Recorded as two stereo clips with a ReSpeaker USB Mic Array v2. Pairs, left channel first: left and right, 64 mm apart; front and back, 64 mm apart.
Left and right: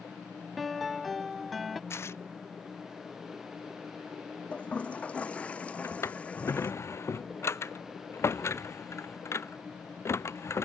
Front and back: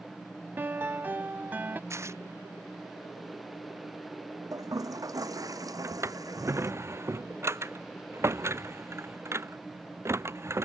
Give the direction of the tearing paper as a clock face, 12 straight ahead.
7 o'clock.